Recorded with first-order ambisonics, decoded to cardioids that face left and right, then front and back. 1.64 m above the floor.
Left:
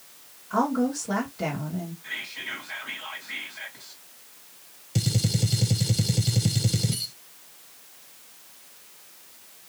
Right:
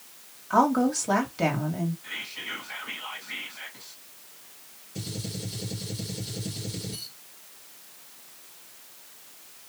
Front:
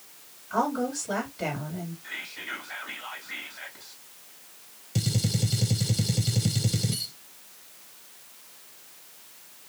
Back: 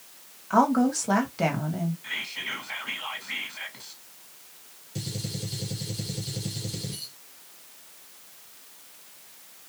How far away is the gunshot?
About 0.6 m.